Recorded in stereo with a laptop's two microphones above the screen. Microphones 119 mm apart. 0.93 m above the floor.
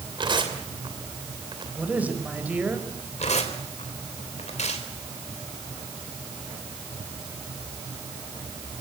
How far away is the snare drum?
No snare drum in this recording.